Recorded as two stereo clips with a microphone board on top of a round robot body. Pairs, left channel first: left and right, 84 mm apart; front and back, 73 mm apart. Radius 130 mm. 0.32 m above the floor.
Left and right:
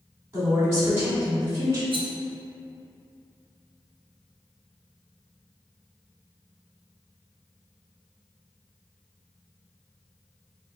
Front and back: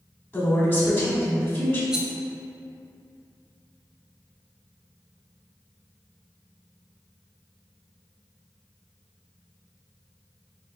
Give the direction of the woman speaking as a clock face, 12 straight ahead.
1 o'clock.